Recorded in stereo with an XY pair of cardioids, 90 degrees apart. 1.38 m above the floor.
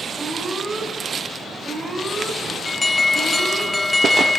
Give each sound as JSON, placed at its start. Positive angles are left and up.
{"t": 0.2, "sound": "an alarm", "azimuth_deg": -15, "distance_m": 8.5}
{"t": 2.6, "sound": "an alarm", "azimuth_deg": 20, "distance_m": 1.6}